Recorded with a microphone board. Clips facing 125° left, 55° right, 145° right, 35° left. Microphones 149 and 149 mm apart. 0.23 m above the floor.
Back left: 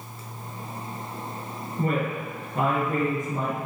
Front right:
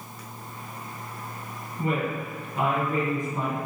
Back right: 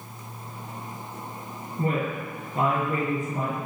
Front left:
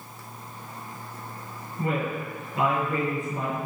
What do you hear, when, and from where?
1.8 s a woman speaking: 160° left, 4.5 m